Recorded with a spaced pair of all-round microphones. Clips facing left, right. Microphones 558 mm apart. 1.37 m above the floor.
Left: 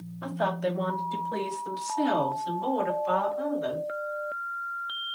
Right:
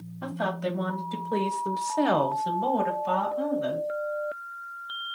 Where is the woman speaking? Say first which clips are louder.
Left 1 dB; 20° right (ahead or behind), 1.0 m; by 3.9 s 50° right (ahead or behind), 1.3 m.